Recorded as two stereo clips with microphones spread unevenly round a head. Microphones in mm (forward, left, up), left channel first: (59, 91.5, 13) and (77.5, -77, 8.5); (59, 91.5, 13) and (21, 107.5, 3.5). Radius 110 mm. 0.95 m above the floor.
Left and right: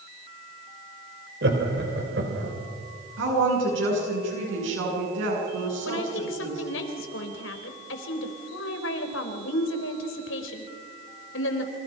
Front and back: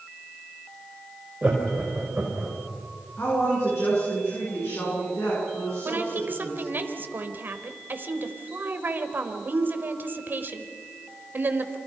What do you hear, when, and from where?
1.4 s laughter: 125° right, 4.5 m
3.2 s a woman speaking: 95° right, 9 m
5.8 s a woman speaking: 120° left, 3.5 m